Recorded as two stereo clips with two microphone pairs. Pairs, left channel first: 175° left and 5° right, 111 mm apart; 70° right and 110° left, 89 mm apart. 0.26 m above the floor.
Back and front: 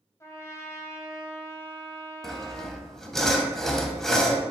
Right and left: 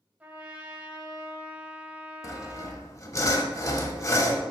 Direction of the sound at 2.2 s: 100° right.